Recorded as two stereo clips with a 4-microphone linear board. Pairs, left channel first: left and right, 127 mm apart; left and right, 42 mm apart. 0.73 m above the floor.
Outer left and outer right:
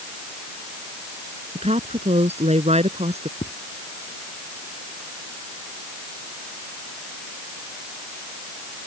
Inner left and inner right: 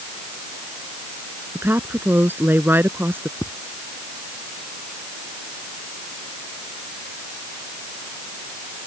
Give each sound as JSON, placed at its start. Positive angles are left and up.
{"t": 1.6, "sound": "a woman speaking", "side_deg": -55}
{"t": 3.4, "sound": "footsteps", "side_deg": 65}